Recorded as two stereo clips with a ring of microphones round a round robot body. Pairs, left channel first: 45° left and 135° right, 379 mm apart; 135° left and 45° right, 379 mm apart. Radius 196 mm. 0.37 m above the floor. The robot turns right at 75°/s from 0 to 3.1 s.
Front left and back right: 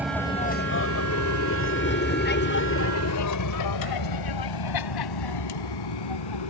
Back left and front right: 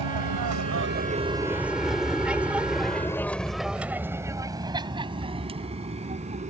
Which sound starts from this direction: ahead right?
An aircraft, at 0.0 s.